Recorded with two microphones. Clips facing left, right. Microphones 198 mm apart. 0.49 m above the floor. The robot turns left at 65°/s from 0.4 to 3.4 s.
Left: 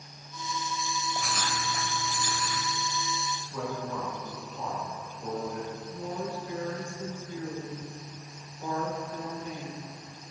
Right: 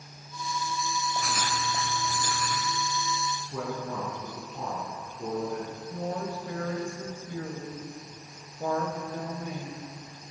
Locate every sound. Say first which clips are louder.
1.1 s writing: right 2 dB; 5° left, 2.0 m; by 2.7 s 95° right, 2.0 m
3.4 s a man speaking: right 1 dB; 55° right (ahead or behind), 5 m
5.9 s a woman speaking: right 3 dB; 65° right (ahead or behind), 2.5 m